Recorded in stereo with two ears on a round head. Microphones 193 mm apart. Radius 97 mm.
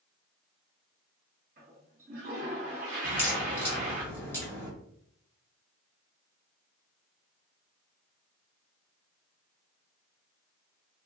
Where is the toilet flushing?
40° right (ahead or behind), 1.5 m.